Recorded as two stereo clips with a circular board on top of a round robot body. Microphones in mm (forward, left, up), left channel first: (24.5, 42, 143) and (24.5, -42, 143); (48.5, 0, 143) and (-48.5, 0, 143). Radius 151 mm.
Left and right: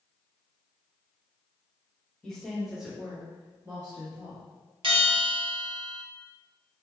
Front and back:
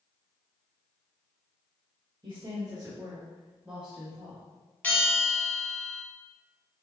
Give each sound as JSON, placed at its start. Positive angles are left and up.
{"t": 2.2, "sound": "a woman speaking", "azimuth_deg": 165, "distance_m": 1.7}
{"t": 4.8, "sound": "a bell", "azimuth_deg": -75, "distance_m": 1.1}